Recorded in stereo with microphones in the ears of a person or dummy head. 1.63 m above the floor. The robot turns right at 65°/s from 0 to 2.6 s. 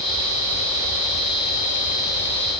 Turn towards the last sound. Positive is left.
No sound to turn to.